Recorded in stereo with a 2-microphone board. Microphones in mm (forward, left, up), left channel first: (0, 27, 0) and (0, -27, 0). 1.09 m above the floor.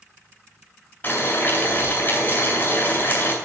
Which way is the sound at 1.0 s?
40° left (ahead or behind).